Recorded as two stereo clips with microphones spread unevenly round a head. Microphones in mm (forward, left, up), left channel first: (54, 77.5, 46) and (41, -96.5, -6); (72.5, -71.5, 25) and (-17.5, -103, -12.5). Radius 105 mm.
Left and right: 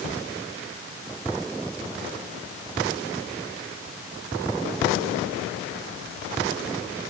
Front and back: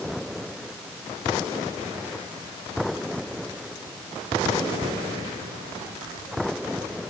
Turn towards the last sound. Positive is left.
No sound to turn to.